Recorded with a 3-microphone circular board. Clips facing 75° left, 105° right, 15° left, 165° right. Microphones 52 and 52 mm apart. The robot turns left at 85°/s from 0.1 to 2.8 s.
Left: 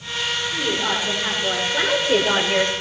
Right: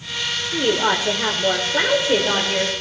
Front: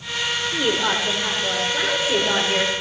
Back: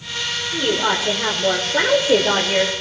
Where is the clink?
No clink in this recording.